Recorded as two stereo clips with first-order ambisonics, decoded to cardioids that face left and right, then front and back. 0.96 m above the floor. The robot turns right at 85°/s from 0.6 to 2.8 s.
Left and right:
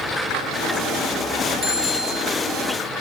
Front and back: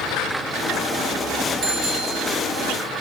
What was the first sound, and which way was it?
A bicycle bell, 150° left.